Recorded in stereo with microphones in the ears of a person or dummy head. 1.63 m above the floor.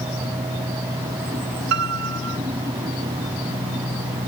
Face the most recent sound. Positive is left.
turn(degrees=-70)  # may be behind; listen again after turning